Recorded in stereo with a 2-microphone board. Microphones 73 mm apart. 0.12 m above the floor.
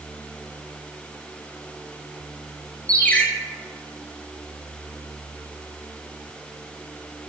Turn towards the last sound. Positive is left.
turn(degrees=20)  # may be behind; listen again after turning